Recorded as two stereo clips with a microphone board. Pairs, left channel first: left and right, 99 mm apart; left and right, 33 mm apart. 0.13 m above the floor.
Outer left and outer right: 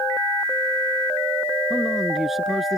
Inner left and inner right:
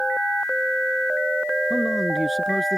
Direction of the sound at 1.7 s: 5° right (ahead or behind).